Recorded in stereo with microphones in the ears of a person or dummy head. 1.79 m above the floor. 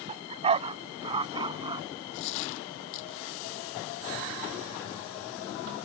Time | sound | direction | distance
0.1 | a dog barking | 35° right (ahead or behind) | ?
2.1 | a dropped coin | 70° left (ahead or behind) | ?